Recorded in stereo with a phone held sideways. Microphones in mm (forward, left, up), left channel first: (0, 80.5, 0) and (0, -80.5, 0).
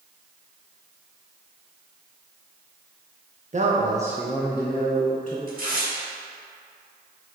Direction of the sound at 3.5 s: 50° right (ahead or behind).